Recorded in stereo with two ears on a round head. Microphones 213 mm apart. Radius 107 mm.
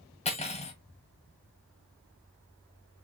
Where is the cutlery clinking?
30° left (ahead or behind), 1.9 m.